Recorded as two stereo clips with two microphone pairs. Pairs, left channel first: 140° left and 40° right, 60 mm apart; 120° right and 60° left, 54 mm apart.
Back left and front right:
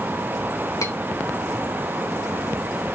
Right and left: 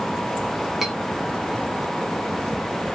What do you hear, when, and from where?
0.8 s cutlery clinking: 140° left, 0.9 m